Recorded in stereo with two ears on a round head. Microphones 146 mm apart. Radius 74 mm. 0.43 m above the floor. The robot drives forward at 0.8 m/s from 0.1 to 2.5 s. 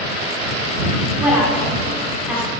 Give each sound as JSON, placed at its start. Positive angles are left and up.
{"t": 1.2, "sound": "a woman speaking", "side_deg": -10, "distance_m": 1.3}